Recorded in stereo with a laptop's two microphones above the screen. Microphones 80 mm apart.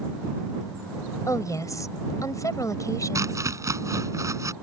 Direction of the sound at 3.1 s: 45° right (ahead or behind).